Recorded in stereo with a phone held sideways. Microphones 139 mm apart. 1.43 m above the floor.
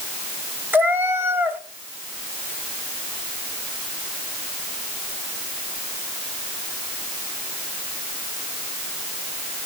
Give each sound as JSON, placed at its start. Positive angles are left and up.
{"t": 0.7, "sound": "a cat meowing", "side_deg": -15, "distance_m": 0.7}